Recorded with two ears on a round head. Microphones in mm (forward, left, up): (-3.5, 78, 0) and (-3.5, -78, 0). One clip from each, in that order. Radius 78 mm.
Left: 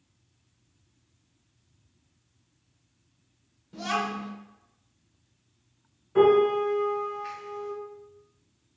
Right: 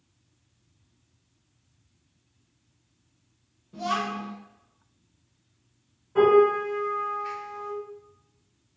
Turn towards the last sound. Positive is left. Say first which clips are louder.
# right 1 dB
turn(degrees=40)  # may be behind; listen again after turning